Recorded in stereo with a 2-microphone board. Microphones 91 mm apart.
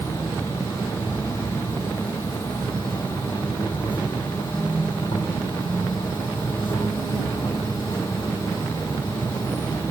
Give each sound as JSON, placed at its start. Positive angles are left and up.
{"t": 0.0, "sound": "an insect", "side_deg": 65, "distance_m": 1.1}